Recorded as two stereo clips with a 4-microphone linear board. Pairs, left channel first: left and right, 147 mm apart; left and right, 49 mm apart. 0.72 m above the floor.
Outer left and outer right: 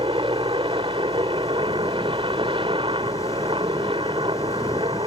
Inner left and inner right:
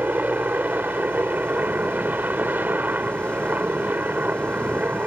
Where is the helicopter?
35° right (ahead or behind).